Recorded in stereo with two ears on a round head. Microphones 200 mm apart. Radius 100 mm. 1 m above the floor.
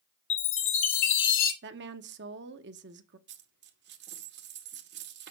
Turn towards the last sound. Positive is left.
turn(degrees=-50)  # may be behind; listen again after turning